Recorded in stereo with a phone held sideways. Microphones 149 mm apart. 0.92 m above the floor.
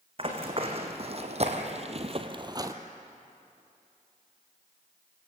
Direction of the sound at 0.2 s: 40° right (ahead or behind).